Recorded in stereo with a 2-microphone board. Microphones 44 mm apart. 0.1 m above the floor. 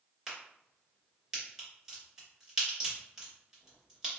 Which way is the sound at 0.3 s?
10° right (ahead or behind).